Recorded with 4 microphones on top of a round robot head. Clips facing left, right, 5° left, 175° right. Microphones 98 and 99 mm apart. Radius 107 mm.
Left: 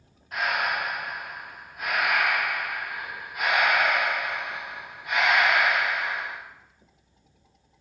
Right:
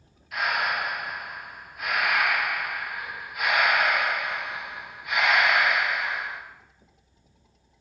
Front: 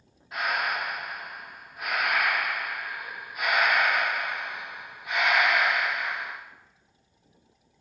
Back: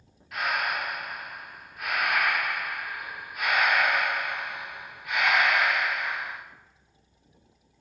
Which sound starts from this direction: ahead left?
Breathing, at 0.3 s.